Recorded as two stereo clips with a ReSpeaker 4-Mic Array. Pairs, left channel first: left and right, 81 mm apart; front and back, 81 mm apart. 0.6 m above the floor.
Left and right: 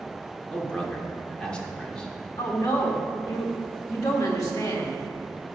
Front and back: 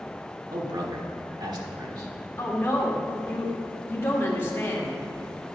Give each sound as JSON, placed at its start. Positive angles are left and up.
{"t": 0.5, "sound": "a man speaking", "azimuth_deg": 165, "distance_m": 1.4}
{"t": 2.4, "sound": "a woman speaking", "azimuth_deg": 55, "distance_m": 1.5}